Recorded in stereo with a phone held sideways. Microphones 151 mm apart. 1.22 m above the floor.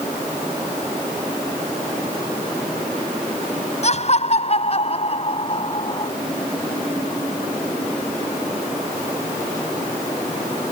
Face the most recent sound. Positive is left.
turn(degrees=35)  # may be behind; listen again after turning